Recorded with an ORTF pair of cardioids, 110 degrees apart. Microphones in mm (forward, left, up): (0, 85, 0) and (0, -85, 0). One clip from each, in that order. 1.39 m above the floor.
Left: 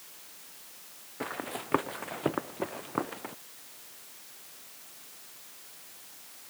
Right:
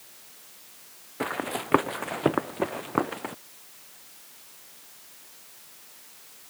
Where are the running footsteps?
40° right.